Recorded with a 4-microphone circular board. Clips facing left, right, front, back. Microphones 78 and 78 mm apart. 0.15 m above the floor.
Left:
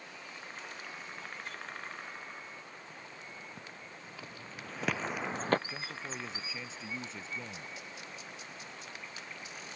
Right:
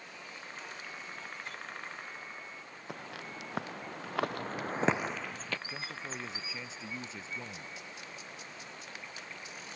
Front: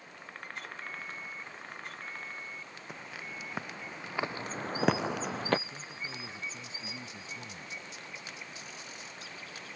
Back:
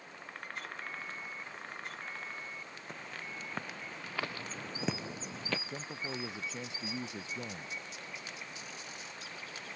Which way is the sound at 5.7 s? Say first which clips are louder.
Even, back 3 dB; straight behind.